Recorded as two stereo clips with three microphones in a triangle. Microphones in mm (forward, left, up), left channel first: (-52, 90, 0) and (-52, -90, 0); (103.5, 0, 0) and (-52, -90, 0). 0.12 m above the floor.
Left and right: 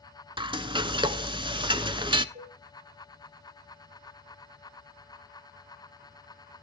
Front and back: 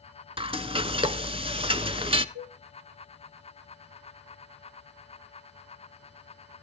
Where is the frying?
125° right, 0.7 m.